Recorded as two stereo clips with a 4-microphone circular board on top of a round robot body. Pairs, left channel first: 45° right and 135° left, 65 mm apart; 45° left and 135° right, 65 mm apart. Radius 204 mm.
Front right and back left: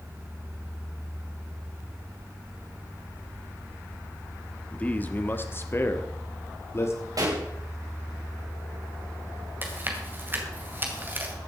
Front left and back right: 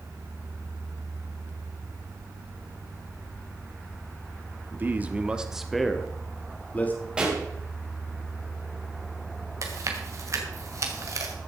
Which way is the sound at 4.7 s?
100° right.